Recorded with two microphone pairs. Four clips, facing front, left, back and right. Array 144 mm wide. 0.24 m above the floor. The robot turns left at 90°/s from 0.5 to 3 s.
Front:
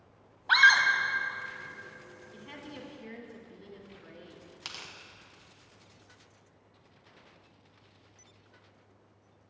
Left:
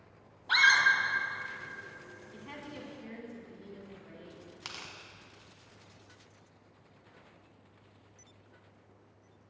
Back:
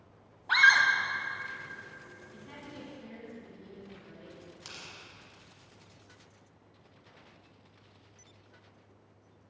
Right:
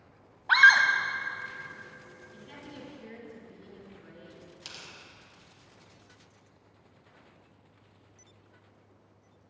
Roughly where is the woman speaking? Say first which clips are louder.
Left 2 dB, front 2 dB; left.